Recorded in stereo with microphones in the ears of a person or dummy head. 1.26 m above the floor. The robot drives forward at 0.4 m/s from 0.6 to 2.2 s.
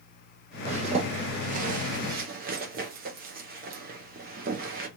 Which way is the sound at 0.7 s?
35° right (ahead or behind).